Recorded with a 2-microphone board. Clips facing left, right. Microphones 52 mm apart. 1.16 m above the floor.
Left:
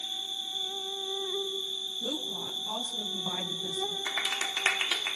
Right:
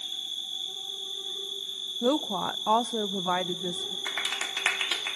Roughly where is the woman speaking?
Right.